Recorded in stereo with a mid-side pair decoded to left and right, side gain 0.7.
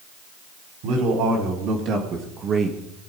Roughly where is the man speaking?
Ahead right.